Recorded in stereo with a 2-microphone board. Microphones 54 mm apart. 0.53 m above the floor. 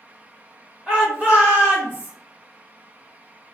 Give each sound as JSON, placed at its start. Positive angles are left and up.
{"t": 0.9, "sound": "a shout", "side_deg": -15, "distance_m": 1.1}